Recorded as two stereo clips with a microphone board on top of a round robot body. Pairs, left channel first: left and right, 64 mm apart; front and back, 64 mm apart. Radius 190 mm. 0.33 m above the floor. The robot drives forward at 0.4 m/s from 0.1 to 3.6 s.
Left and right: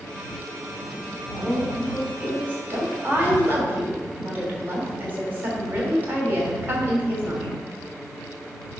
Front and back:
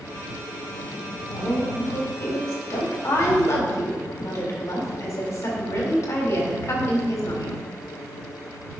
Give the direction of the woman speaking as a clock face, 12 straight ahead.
1 o'clock.